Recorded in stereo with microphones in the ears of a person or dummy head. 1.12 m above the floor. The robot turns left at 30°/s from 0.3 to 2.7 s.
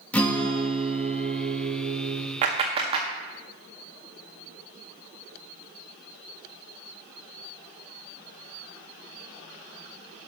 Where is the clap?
45° right (ahead or behind), 1.8 m; by 3.1 s 35° right (ahead or behind), 1.8 m.